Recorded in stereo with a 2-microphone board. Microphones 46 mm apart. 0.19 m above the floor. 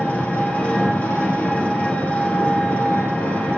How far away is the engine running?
About 3 m.